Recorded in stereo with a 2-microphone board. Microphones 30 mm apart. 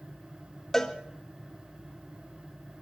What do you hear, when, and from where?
0.7 s a cowbell: 10° left (ahead or behind), 1.7 m